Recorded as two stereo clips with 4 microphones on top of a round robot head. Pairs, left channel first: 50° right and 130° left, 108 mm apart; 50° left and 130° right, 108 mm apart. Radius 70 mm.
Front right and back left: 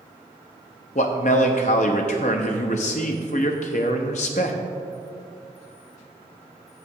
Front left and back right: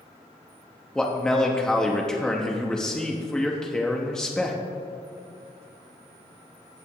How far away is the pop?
No pop in this recording.